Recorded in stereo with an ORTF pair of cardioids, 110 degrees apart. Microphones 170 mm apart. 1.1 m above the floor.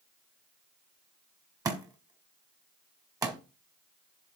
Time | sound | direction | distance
1.6 | a thud | 20° right | 1.7 m